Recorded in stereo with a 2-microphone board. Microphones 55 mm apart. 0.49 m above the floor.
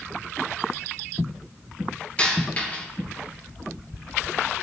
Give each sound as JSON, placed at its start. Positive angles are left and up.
{"t": 2.2, "sound": "a dropped coin", "side_deg": 25, "distance_m": 4.5}